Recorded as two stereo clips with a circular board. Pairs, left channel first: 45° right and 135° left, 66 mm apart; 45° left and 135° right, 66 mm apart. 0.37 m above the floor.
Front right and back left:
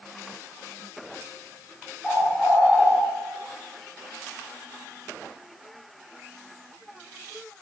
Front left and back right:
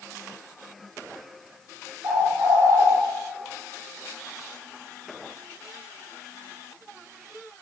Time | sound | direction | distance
2.0 | a bird | 145° right | 4 m